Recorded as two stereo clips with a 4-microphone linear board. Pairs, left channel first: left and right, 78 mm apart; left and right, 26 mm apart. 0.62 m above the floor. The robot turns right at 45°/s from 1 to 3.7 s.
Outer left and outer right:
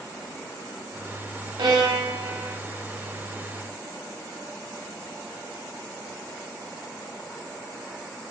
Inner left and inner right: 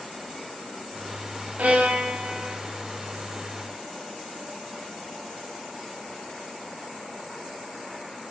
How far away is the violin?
About 1.1 m.